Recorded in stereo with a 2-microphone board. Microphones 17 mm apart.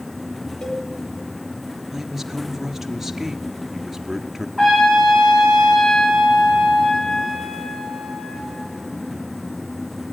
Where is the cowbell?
50° left (ahead or behind), 3 m.